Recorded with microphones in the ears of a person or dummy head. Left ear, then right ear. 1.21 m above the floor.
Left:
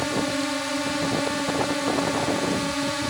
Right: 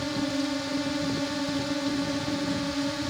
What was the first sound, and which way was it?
A drone, 40° left (ahead or behind).